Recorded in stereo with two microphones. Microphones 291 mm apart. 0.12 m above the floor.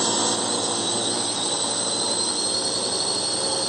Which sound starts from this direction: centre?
A drone, at 0.0 s.